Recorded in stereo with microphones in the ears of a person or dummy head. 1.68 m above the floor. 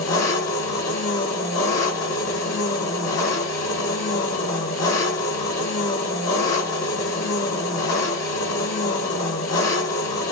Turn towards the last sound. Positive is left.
turn(degrees=55)  # may be behind; listen again after turning